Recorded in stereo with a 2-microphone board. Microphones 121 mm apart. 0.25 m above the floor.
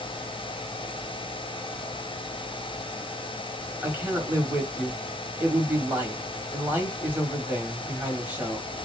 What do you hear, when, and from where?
3.8 s a man speaking: 15° right (ahead or behind), 1.4 m